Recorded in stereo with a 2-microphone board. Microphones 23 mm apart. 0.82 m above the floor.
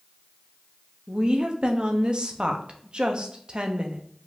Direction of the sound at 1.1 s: 40° right (ahead or behind).